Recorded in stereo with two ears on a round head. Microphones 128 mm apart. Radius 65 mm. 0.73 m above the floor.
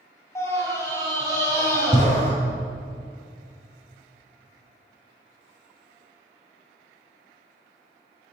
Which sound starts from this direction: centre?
A scream, at 0.3 s.